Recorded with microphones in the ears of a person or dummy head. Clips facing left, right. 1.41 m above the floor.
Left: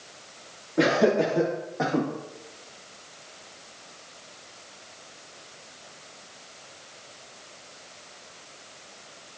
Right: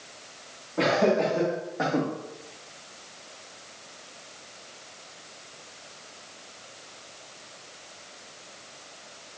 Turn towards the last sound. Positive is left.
turn(degrees=0)  # may be behind; listen again after turning